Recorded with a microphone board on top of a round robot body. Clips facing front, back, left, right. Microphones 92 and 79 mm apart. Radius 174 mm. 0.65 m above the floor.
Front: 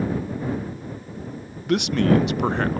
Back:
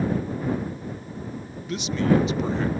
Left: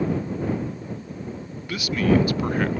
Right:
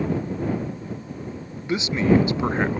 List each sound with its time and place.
1.7 s a man speaking: 25° right